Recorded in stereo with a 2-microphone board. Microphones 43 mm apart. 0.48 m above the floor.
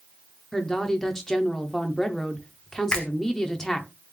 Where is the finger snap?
20° left (ahead or behind), 0.9 m.